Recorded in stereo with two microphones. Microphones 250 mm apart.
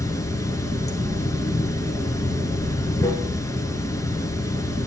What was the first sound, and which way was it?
Running water, 10° left (ahead or behind).